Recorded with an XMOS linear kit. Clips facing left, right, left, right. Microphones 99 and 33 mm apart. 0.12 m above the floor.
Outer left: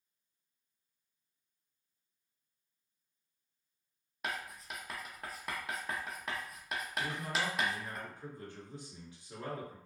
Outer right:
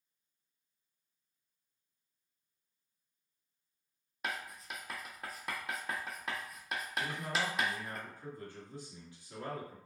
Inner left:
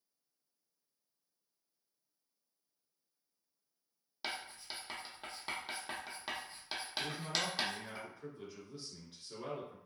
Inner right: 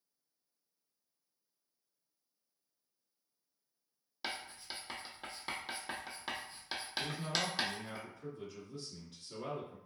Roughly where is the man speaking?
Left.